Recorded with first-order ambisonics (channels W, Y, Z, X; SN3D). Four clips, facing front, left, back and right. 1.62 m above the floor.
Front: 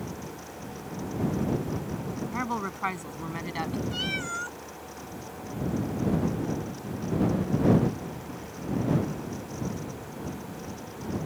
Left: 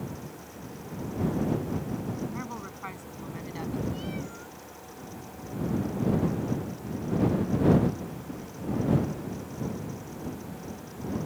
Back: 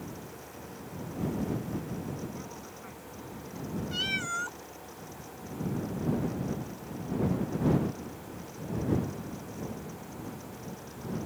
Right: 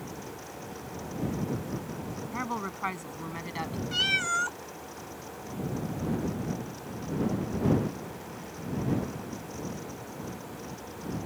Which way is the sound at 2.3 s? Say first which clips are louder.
Right 4 dB, front 12 dB; 25° right.